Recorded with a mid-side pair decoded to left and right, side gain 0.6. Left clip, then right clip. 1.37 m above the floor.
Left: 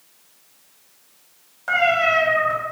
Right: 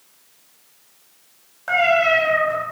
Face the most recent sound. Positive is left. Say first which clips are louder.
# right 1 dB
turn(degrees=-5)